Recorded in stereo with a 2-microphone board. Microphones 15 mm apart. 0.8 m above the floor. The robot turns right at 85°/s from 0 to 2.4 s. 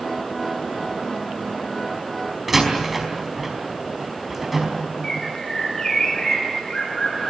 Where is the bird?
40° left (ahead or behind), 5.5 m.